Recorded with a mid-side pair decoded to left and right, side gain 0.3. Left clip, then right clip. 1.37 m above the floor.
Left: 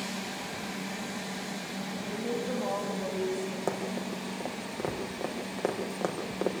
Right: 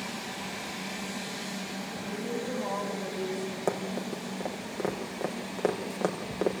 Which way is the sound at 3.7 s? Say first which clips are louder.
Right 4 dB; 20° right.